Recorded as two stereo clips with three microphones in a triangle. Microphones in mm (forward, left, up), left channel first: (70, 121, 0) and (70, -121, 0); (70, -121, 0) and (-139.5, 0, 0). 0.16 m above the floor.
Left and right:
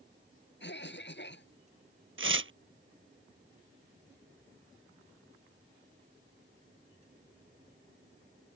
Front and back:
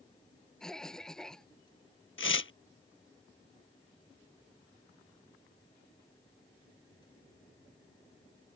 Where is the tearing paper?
60° right.